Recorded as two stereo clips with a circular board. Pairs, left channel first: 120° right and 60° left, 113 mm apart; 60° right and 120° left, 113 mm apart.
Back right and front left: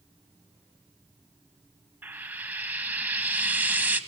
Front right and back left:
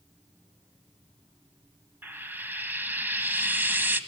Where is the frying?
95° left, 1.2 m.